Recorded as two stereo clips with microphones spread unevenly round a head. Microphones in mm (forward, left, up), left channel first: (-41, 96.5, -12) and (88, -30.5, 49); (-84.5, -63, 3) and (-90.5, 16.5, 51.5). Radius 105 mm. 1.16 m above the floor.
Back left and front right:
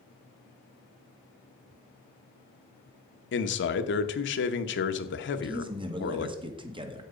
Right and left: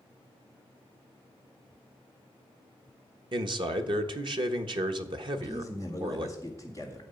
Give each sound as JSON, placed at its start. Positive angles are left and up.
{"t": 3.3, "sound": "a man speaking", "azimuth_deg": 115, "distance_m": 1.1}
{"t": 5.3, "sound": "a man speaking", "azimuth_deg": 20, "distance_m": 1.9}